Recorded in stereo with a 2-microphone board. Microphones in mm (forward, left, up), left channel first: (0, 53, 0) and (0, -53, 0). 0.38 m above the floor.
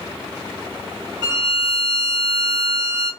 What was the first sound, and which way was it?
A violin, 45° right (ahead or behind).